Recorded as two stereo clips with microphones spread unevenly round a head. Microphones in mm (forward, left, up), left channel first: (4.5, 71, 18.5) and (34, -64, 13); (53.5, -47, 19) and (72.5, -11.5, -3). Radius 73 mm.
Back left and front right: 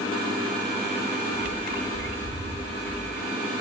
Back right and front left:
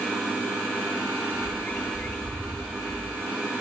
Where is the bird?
115° right, 1.9 m.